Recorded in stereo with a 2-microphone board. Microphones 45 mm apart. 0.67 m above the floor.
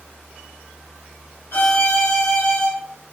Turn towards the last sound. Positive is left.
turn(degrees=65)  # may be behind; listen again after turning